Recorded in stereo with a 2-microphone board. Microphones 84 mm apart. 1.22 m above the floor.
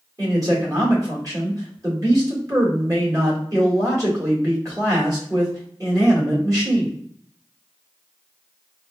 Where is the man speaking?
45° right (ahead or behind), 1.9 m.